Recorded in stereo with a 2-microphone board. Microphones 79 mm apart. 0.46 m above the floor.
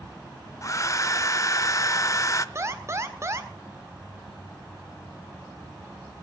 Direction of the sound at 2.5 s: 35° right (ahead or behind).